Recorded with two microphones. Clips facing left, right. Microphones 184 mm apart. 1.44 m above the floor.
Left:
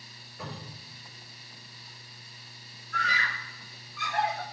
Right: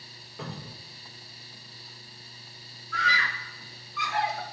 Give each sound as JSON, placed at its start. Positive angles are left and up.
{"t": 0.4, "sound": "a cupboard door", "side_deg": -80, "distance_m": 5.0}
{"t": 2.9, "sound": "a scream", "side_deg": -90, "distance_m": 1.7}